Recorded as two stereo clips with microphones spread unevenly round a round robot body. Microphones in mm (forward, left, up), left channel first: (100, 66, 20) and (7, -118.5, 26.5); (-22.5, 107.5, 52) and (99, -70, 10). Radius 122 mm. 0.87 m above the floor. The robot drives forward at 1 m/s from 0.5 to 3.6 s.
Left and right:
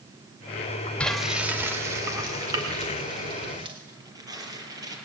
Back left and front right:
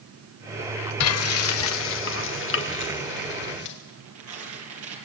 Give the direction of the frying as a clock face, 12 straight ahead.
7 o'clock.